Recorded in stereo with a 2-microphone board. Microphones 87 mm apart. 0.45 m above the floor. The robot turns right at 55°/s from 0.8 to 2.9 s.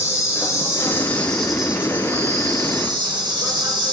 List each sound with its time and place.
0.0 s an insect: 145° left, 1.1 m; by 3.9 s 100° right, 1.1 m